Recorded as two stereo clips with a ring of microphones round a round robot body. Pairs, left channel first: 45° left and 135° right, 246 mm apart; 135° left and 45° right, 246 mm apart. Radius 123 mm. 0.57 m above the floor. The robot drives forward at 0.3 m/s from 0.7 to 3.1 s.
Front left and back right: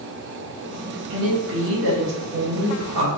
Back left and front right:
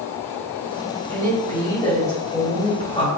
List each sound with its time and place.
1.1 s a woman speaking: 150° right, 1.1 m; by 3.1 s 160° right, 1.5 m